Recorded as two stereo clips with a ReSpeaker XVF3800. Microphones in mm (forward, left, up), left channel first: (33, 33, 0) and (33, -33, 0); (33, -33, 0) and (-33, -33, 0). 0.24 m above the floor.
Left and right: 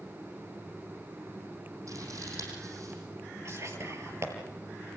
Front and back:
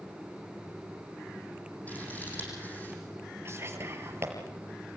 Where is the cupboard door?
I don't hear a cupboard door.